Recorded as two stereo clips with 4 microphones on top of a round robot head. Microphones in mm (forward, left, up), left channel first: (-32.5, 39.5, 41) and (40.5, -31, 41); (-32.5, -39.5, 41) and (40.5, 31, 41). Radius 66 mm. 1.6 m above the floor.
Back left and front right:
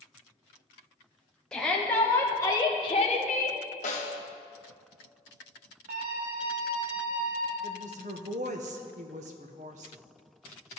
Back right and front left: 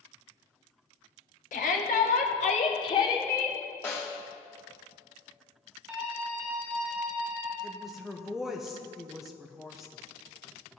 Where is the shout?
140° right, 1.3 m; by 3.6 s 145° left, 0.8 m.